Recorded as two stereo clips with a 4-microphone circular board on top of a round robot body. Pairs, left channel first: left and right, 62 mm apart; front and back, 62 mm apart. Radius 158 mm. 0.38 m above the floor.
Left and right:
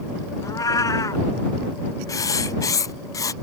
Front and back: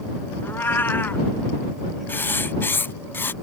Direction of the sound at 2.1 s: 55° left.